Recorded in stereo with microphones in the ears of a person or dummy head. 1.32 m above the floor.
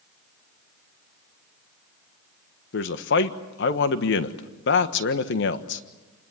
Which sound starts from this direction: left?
A man speaking, at 2.7 s.